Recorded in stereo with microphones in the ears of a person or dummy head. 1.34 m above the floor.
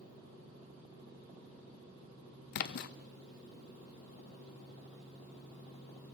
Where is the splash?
55° left (ahead or behind), 0.7 m.